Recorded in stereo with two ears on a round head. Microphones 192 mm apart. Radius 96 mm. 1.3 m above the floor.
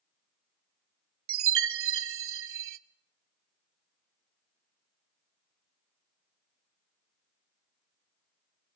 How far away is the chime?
About 0.8 m.